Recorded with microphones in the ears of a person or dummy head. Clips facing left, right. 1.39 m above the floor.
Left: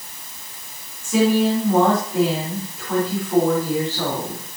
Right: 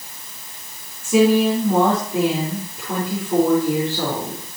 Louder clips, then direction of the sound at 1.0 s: Right 2 dB; 25° right (ahead or behind).